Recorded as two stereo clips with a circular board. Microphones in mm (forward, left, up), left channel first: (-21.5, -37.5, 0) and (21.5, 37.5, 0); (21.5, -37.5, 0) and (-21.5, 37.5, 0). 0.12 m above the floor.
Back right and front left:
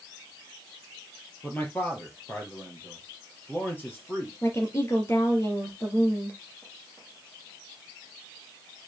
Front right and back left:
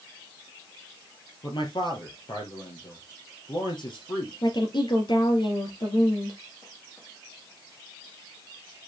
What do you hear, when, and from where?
1.4 s a man speaking: 55° right, 3 m
4.4 s a woman speaking: 65° right, 3 m